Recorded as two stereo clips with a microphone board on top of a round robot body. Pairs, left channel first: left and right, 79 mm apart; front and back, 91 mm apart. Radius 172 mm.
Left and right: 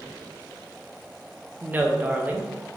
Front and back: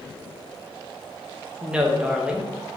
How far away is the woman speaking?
About 0.8 m.